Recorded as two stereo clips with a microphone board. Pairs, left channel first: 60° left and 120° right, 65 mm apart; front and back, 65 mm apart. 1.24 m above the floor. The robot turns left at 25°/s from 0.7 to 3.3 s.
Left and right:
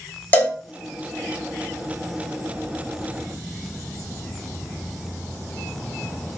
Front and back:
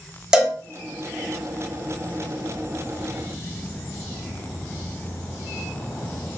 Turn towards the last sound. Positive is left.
turn(degrees=45)